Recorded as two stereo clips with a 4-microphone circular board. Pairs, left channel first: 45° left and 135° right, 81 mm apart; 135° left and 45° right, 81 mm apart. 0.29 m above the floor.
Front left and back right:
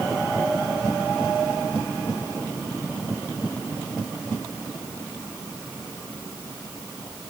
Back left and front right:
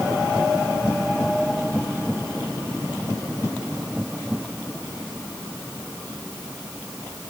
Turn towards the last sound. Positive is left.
No sound to turn to.